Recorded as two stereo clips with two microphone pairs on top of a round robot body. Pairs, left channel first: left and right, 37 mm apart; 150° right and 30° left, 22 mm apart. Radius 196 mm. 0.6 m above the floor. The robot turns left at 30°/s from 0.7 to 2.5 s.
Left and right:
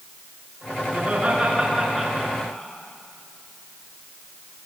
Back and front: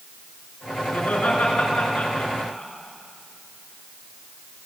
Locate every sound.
0.9 s laughter: 145° right, 8.5 m; by 2.7 s 165° left, 8.5 m